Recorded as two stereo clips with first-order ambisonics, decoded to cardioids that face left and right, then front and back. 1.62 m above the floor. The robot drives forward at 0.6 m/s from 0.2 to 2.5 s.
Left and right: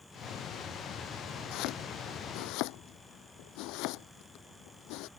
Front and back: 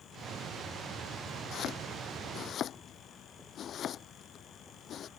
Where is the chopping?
55° left; by 5.1 s 60° left.